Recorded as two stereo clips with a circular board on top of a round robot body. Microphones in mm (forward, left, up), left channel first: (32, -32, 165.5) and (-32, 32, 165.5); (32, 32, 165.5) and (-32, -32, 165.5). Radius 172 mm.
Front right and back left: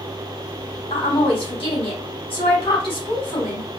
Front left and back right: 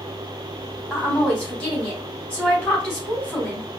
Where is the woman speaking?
30° right, 3.5 m.